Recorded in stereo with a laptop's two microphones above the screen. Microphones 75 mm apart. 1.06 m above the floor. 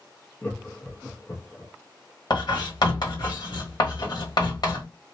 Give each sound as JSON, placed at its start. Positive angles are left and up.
{"t": 0.4, "sound": "laughter", "side_deg": 25, "distance_m": 0.7}
{"t": 2.3, "sound": "writing", "side_deg": 60, "distance_m": 1.2}